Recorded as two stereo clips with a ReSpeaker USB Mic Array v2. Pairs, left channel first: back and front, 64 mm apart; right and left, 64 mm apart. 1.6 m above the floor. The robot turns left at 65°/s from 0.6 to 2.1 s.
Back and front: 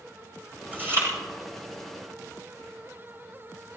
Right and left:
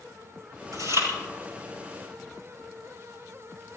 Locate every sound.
0.7 s chewing: 65° left, 7 m; by 1.1 s 40° left, 7 m